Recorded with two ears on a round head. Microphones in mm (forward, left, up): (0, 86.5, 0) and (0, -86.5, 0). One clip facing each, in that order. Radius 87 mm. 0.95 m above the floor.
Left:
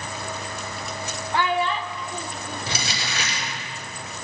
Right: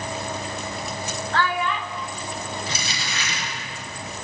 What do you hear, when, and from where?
1.3 s a child speaking: 10° left (ahead or behind), 0.7 m; by 3.7 s 55° left (ahead or behind), 2.5 m
2.7 s crumpling: 55° left (ahead or behind), 7.5 m